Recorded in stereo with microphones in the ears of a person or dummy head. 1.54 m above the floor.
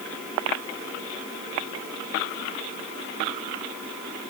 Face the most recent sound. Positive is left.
No sound to turn to.